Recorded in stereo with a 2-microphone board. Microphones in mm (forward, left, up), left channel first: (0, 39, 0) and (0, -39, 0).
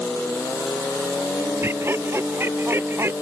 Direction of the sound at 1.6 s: 30° right (ahead or behind).